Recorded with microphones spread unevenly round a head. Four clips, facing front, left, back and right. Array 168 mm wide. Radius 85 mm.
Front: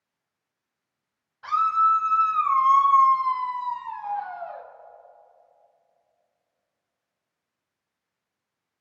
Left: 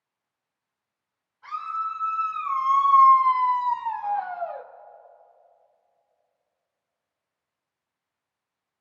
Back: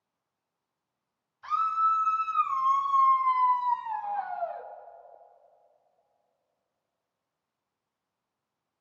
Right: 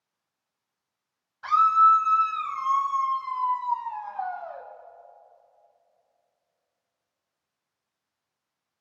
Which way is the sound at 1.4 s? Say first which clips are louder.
Right 12 dB, front 5 dB; 40° right.